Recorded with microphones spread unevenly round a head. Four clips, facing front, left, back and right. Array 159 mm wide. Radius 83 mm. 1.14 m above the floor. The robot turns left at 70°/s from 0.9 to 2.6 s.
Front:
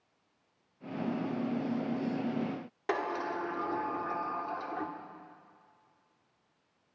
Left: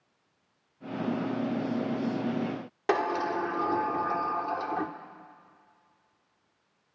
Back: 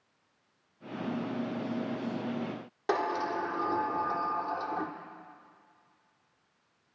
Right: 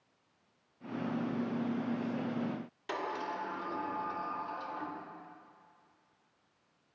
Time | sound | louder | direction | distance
2.9 | a sliding door | left 10 dB, back 3 dB | 115° left | 1.2 m